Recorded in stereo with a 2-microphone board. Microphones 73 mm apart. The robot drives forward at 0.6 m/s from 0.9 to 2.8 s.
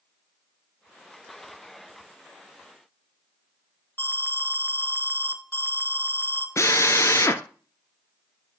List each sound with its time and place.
4.0 s an alarm: 25° left (ahead or behind), 0.9 m
6.6 s a drill: 40° left (ahead or behind), 0.6 m